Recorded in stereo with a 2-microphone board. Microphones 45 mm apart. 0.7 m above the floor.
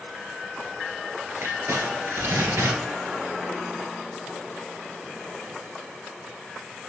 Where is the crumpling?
70° right (ahead or behind), 1.6 m.